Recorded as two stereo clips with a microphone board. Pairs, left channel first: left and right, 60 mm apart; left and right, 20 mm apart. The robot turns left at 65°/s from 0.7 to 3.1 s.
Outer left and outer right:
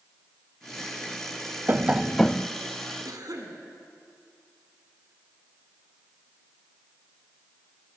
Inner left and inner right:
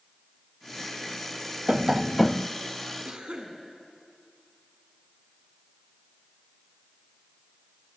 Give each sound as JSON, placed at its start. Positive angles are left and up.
{"t": 1.7, "sound": "tapping", "azimuth_deg": -145, "distance_m": 0.5}
{"t": 3.0, "sound": "a cough", "side_deg": -70, "distance_m": 5.0}